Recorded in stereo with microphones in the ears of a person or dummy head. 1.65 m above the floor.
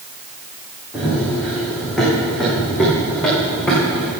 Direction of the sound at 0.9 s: 5° right (ahead or behind).